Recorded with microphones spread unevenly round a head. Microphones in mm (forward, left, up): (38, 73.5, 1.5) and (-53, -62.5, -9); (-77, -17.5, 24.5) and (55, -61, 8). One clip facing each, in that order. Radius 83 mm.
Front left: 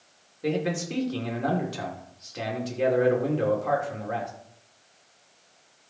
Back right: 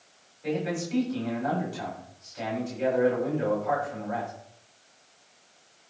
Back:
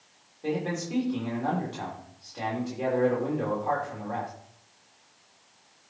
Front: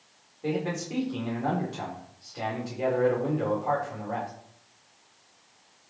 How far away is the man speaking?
About 4.5 m.